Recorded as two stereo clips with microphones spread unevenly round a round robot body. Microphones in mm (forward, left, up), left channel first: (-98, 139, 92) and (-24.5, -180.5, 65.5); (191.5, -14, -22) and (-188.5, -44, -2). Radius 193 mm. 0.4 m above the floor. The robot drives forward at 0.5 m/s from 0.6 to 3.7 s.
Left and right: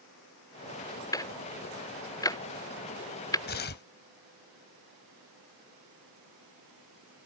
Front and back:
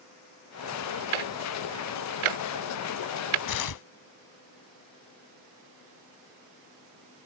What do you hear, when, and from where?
1.1 s ticking: straight behind
3.5 s tearing paper: 40° left